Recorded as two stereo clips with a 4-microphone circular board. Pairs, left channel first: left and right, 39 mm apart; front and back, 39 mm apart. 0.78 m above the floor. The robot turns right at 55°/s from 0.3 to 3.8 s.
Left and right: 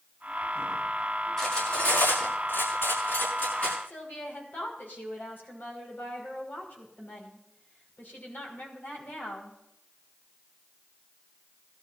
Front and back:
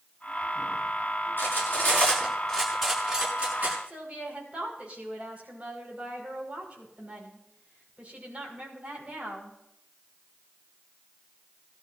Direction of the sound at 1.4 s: 10° left.